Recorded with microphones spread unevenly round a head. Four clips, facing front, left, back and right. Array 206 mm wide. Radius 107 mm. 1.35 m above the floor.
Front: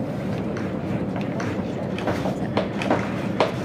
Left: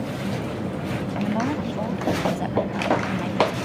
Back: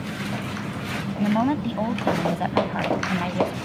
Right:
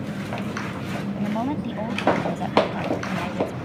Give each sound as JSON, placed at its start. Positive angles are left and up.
{"t": 1.2, "sound": "a woman speaking", "azimuth_deg": 175}